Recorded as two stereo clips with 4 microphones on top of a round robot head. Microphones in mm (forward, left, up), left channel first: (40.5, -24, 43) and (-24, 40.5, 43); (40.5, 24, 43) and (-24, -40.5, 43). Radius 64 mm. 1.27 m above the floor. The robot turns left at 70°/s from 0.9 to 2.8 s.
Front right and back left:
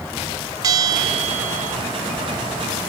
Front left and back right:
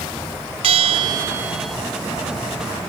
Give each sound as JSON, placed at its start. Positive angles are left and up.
{"t": 0.6, "sound": "a bell", "azimuth_deg": -170, "distance_m": 0.5}